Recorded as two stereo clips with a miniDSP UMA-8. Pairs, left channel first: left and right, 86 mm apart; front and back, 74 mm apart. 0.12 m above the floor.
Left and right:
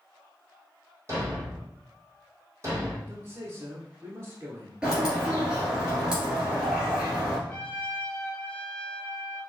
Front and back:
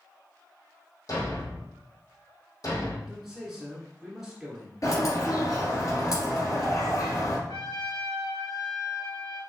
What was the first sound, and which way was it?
A thud, 35° right.